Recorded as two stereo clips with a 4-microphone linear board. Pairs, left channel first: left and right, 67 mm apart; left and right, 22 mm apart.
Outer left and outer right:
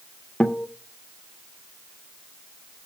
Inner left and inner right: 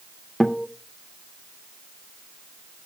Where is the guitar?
15° left (ahead or behind), 0.6 m.